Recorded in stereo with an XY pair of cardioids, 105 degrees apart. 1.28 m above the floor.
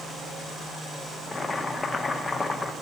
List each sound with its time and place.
1.3 s boiling: 20° left, 1.2 m